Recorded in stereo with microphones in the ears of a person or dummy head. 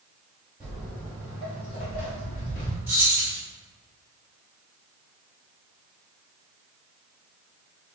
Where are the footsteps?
5° right (ahead or behind), 1.8 m; by 2.8 s 50° left (ahead or behind), 2.5 m.